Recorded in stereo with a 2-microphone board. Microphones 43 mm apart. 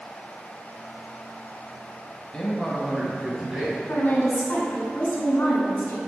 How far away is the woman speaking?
About 1.5 m.